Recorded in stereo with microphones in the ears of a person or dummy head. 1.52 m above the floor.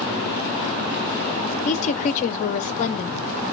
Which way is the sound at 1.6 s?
40° left (ahead or behind).